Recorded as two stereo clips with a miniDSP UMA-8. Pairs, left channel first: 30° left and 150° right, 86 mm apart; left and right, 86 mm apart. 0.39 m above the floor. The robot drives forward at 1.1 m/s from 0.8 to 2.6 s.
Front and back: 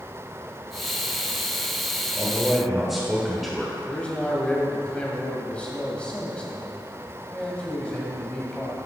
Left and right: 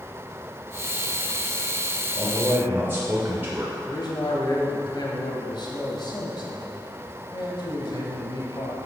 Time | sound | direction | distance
2.1 | a man speaking | 35° right | 1.4 m
3.9 | a man speaking | 105° left | 1.8 m